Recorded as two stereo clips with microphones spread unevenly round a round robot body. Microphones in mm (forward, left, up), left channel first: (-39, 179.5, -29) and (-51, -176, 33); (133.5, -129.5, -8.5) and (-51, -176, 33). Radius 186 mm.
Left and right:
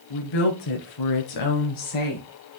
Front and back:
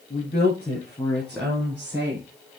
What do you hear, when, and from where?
0.1 s a woman speaking: 75° left, 5 m; by 2.3 s 115° left, 5 m